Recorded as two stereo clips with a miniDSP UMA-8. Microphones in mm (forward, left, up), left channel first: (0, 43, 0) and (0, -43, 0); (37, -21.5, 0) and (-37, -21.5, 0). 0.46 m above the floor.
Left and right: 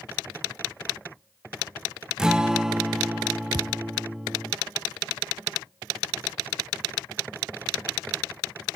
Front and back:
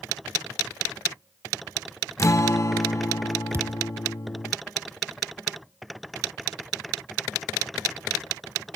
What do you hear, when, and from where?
2.2 s a guitar: 10° right, 0.7 m
3.5 s a thud: 125° right, 0.7 m